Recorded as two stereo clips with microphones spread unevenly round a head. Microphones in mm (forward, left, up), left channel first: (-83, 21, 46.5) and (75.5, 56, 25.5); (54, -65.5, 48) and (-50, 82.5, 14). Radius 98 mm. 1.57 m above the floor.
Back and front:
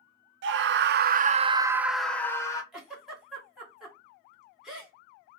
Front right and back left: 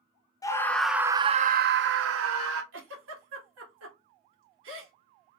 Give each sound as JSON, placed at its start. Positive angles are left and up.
{"t": 0.4, "sound": "a scream", "azimuth_deg": 15, "distance_m": 0.7}
{"t": 2.7, "sound": "a giggle", "azimuth_deg": 105, "distance_m": 1.7}